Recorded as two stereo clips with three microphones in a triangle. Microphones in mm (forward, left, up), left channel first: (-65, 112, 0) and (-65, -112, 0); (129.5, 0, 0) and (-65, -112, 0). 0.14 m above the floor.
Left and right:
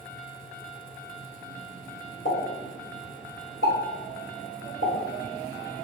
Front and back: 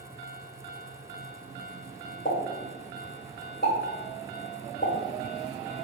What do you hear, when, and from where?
2.2 s a pop: 70° left, 1.6 m